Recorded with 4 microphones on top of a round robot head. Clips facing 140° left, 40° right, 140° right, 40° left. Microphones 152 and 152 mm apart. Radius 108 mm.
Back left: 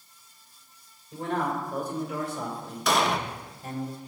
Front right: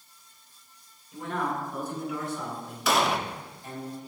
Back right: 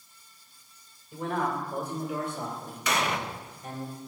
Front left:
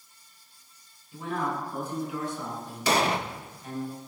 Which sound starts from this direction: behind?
A man speaking, at 1.1 s.